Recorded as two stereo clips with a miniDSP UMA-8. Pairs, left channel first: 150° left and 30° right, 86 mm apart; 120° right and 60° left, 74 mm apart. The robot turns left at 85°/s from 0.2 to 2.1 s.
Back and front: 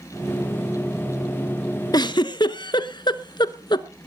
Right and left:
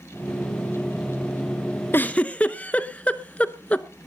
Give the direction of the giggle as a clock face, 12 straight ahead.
6 o'clock.